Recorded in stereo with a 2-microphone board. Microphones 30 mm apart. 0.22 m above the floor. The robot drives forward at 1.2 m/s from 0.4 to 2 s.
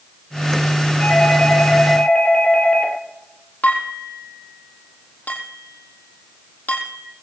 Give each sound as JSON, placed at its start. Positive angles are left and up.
{"t": 1.0, "sound": "a doorbell", "side_deg": 40, "distance_m": 6.5}
{"t": 3.6, "sound": "dishes clattering", "side_deg": 60, "distance_m": 5.0}